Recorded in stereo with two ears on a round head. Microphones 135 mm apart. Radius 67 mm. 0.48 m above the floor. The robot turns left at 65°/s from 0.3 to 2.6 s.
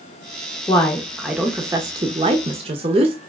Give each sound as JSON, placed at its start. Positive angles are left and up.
{"t": 0.7, "sound": "a woman speaking", "azimuth_deg": 35, "distance_m": 0.8}